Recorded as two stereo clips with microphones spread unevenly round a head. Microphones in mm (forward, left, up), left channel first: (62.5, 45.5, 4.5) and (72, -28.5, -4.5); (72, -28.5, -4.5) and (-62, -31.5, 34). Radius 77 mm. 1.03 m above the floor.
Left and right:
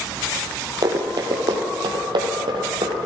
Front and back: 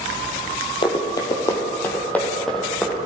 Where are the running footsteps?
60° right, 1.9 m; by 3.1 s 100° right, 2.5 m.